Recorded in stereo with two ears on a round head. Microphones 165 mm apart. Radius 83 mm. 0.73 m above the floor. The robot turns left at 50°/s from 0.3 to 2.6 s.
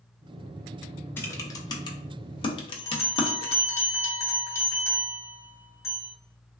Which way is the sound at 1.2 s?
10° left (ahead or behind).